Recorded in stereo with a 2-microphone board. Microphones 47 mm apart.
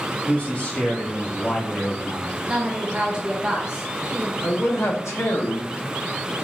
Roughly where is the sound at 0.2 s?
Left.